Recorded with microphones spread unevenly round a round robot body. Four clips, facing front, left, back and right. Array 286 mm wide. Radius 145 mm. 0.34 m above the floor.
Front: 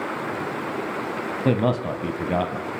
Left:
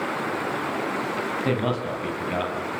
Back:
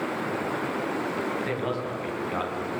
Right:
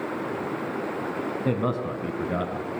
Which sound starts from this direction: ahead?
A man speaking, at 1.4 s.